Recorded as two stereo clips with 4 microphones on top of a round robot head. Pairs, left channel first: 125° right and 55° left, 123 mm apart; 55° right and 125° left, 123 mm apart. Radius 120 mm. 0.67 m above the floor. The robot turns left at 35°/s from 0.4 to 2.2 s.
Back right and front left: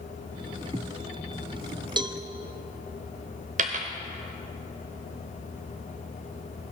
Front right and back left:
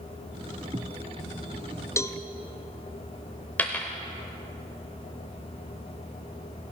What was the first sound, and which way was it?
A cowbell, 10° left.